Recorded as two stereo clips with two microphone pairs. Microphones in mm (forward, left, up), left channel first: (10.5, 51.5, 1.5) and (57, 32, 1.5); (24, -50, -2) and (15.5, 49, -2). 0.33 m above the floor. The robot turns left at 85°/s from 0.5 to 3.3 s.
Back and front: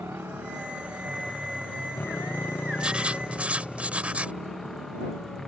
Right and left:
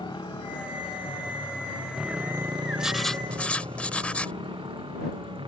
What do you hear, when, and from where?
0.0 s a motorcycle: 50° right; by 5.5 s 75° left
2.8 s writing: 20° left; by 4.4 s 20° right